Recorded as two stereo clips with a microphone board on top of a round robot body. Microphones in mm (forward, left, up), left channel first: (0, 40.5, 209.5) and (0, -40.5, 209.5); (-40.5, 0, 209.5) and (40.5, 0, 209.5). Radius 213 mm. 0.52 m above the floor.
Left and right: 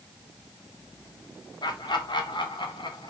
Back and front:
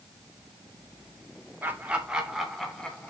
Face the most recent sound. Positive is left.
turn(degrees=105)